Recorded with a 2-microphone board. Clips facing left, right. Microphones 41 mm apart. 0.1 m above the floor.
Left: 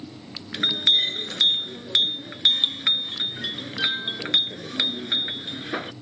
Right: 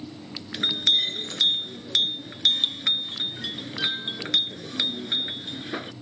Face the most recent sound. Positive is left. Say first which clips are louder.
# left 2 dB
turn(degrees=20)  # may be behind; listen again after turning